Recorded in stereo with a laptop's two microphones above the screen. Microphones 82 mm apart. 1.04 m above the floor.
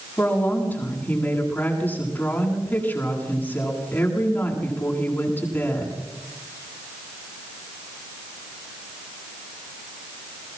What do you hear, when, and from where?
0.2 s a woman speaking: 25° left (ahead or behind), 9.5 m